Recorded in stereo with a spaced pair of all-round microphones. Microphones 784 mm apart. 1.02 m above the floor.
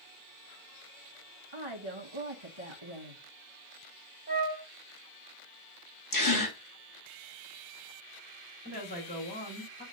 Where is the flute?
30° left (ahead or behind), 1.2 m.